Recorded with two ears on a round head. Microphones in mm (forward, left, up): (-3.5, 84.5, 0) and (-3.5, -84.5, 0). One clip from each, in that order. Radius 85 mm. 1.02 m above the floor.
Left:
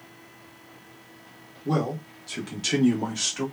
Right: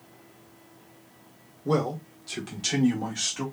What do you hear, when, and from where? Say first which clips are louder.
1.6 s a man speaking: right 1 dB; 20° right (ahead or behind), 0.9 m; by 3.5 s 10° left (ahead or behind), 1.9 m